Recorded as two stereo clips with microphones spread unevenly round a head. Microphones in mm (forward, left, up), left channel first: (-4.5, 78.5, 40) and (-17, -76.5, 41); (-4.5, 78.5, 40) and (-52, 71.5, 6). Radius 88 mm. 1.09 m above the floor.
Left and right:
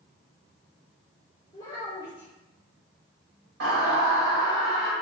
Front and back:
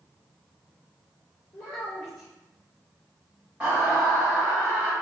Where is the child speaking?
15° left, 1.7 m.